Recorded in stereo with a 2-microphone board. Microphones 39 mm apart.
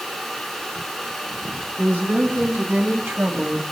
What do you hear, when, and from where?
1.8 s a woman speaking: 65° right (ahead or behind), 4.5 m; by 3.6 s 55° right (ahead or behind), 2 m